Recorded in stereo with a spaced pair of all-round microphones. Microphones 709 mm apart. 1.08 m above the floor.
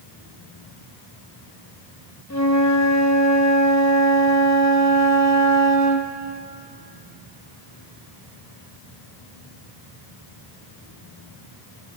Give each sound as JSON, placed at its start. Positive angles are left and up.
{"t": 2.3, "sound": "a flute", "side_deg": 25, "distance_m": 0.9}